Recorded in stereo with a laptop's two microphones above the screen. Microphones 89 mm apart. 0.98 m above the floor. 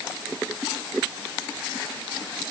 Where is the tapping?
No tapping in this recording.